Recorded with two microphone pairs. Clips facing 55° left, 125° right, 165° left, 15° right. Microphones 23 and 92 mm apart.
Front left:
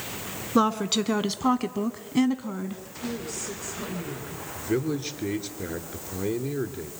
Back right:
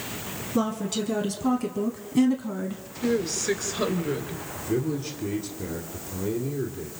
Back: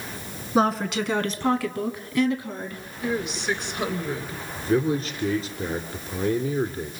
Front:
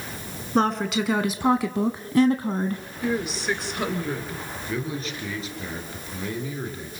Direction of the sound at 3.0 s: 105° right.